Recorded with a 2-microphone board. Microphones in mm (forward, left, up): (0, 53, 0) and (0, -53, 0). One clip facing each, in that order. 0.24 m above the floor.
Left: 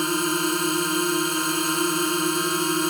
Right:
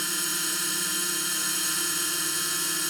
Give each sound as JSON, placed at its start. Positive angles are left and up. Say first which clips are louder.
{"t": 0.0, "sound": "a drone", "louder": "left 13 dB", "side_deg": 55}